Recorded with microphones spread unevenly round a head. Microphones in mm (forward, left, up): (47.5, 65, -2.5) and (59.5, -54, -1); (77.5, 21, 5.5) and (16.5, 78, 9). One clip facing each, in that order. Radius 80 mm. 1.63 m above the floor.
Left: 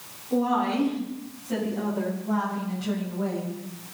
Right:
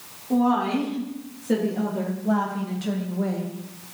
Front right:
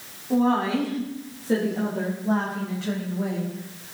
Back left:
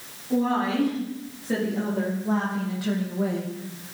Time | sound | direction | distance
0.3 | a woman speaking | 115° right | 4 m